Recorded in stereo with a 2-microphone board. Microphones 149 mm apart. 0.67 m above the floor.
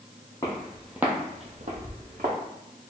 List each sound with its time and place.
0.4 s footsteps: 20° left (ahead or behind), 1.5 m; by 2.3 s 65° right (ahead or behind), 2.0 m